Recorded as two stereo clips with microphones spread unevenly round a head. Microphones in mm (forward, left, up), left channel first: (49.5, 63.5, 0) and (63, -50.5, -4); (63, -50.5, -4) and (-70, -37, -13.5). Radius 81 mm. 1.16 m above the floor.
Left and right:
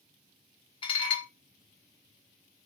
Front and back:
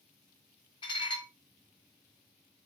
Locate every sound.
0.8 s dishes clattering: 55° left, 0.7 m